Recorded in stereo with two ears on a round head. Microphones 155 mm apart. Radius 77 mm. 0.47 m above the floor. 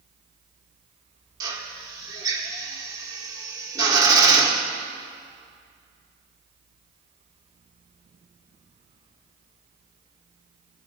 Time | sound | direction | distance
1.4 | a drill | 20° right (ahead or behind) | 1.4 m